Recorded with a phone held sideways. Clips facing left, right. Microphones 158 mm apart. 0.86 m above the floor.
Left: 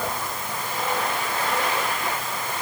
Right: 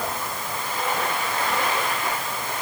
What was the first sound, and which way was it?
Only background noise.